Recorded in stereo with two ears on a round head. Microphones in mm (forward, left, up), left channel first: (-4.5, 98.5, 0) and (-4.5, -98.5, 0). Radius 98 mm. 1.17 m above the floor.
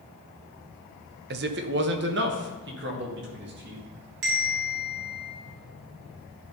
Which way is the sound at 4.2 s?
60° right (ahead or behind).